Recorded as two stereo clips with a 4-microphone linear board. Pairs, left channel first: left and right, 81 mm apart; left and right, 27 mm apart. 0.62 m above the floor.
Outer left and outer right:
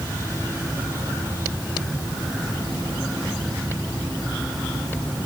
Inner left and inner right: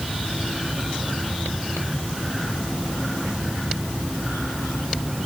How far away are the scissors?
I don't hear scissors.